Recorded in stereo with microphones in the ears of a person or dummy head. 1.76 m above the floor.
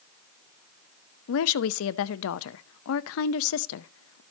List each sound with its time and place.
1.3 s a woman speaking: 75° left (ahead or behind), 0.6 m